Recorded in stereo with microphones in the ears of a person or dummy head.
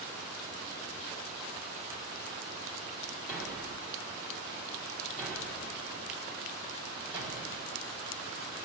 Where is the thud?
5° right (ahead or behind), 0.9 m.